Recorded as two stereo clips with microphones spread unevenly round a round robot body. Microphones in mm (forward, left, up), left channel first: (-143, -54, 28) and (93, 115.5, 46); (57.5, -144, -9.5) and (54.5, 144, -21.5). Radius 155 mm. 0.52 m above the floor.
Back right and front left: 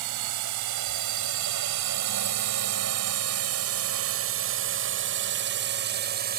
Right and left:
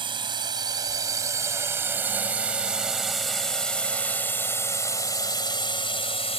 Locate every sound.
0.0 s a drone: 20° left; by 6.4 s 20° right